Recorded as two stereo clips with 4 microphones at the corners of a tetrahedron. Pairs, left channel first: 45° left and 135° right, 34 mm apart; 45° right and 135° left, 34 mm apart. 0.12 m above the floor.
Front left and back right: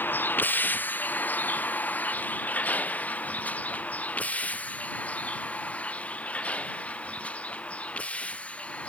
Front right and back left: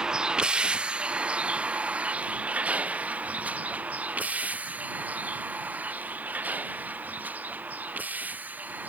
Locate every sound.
0.0 s a vehicle: 65° left; by 8.9 s 95° left